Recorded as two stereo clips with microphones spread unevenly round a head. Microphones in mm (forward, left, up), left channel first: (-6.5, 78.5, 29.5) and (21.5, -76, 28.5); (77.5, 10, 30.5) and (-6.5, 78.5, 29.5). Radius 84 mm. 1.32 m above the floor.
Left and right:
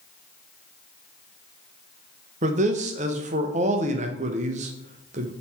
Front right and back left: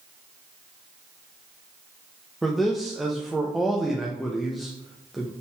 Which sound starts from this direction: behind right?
A man speaking, at 2.4 s.